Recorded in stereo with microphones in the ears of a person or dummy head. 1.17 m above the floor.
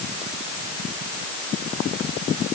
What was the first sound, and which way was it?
Only background noise.